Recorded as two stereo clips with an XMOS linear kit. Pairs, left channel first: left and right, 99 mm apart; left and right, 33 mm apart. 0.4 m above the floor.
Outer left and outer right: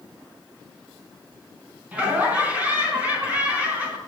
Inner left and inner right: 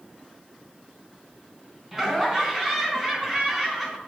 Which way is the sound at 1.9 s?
15° right (ahead or behind).